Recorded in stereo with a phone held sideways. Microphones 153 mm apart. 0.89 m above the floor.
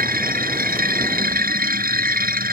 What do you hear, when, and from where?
0.0 s a machine running: 75° right (ahead or behind)